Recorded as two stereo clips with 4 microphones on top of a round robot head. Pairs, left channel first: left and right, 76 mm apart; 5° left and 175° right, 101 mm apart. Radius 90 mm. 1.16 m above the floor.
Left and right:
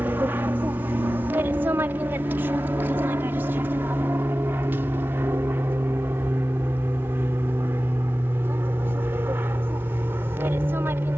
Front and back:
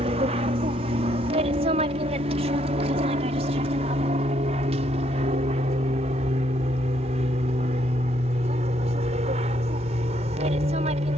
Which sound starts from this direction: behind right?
An aircraft, at 0.0 s.